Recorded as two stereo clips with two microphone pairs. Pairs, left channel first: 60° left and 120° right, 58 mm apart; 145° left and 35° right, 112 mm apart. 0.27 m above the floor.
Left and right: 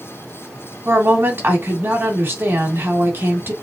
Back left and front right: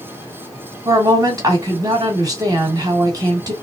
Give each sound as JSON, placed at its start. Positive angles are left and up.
{"t": 0.8, "sound": "a woman speaking", "azimuth_deg": -80, "distance_m": 2.0}